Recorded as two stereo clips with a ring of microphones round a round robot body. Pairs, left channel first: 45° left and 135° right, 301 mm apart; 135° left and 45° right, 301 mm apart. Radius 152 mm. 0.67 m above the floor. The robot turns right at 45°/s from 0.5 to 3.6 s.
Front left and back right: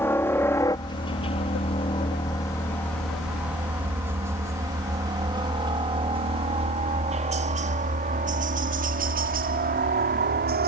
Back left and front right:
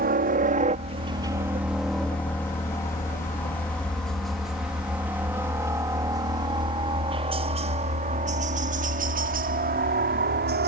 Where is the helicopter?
30° right; by 10.7 s 90° right.